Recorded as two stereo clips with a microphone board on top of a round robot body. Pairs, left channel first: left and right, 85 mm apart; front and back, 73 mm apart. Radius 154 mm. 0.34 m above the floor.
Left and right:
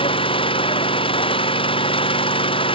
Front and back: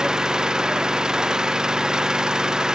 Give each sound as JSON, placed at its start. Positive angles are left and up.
{"t": 0.0, "sound": "an engine running", "azimuth_deg": 95}